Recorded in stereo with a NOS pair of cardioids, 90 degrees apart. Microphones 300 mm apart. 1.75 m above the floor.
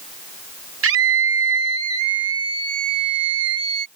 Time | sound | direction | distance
0.8 | a scream | 50° right | ?